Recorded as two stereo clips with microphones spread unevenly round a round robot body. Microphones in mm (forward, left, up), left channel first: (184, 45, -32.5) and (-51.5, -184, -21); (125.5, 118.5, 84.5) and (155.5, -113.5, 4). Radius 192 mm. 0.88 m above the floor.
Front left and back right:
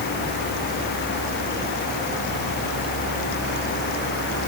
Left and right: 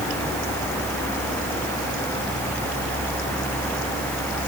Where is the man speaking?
I don't hear a man speaking.